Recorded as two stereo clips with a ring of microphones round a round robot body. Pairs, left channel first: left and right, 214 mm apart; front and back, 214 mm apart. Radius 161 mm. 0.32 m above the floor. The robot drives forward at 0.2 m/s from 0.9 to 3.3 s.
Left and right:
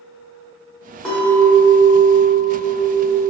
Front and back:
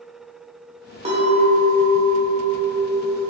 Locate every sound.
1.1 s a clink: 175° left, 0.9 m; by 3.2 s straight behind, 1.1 m